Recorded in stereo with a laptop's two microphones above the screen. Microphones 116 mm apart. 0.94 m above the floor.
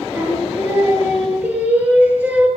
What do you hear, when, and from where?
0.1 s singing: 15° right (ahead or behind), 10 m